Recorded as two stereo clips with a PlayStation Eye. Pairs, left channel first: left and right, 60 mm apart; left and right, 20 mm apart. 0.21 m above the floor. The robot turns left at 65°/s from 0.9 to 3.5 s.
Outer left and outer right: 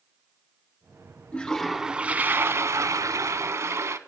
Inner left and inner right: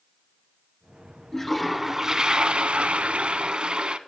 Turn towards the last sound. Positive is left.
turn(degrees=-120)